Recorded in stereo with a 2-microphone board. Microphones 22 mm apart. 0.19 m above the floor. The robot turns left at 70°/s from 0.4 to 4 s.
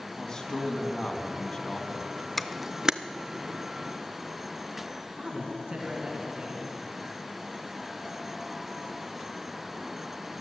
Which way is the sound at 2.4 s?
5° left (ahead or behind).